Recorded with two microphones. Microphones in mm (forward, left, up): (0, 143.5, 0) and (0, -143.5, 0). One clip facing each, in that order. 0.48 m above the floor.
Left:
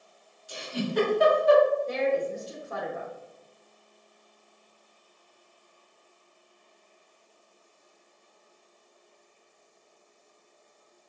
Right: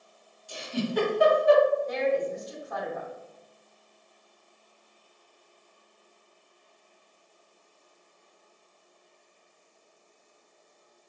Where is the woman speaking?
35° left (ahead or behind), 0.8 m.